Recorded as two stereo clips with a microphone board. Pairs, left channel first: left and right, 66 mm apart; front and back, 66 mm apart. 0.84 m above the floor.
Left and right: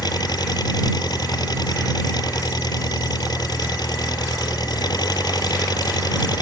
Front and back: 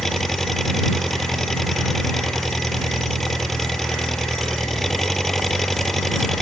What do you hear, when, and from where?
0.0 s an engine running: 85° left